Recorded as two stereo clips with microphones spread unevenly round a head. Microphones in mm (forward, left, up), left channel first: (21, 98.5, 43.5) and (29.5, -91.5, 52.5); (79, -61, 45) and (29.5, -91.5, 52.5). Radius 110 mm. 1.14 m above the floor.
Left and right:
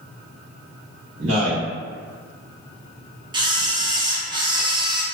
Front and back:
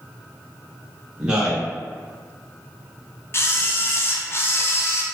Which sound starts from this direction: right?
A man speaking, at 1.2 s.